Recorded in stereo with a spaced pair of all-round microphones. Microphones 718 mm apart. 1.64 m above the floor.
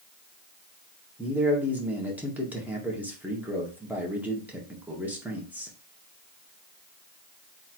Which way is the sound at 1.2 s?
Centre (ahead or behind).